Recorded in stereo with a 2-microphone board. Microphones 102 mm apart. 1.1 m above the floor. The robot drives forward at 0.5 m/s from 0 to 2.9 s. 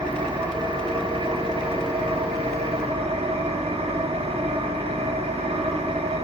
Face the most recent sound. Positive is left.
turn(degrees=-80)